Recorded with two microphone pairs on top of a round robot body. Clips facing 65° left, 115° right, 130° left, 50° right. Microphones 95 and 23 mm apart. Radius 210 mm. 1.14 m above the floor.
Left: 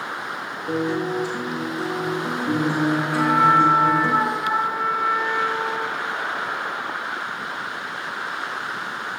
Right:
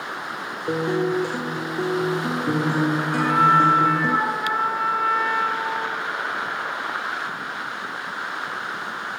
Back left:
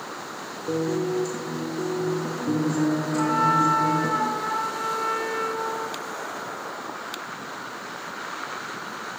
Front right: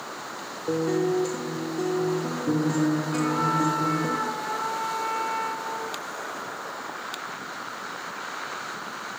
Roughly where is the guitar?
Right.